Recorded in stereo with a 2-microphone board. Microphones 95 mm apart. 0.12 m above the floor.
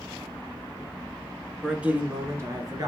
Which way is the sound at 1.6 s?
5° right (ahead or behind).